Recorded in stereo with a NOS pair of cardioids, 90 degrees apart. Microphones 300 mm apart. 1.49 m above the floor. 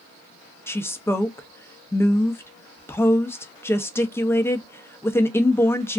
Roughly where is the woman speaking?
Ahead.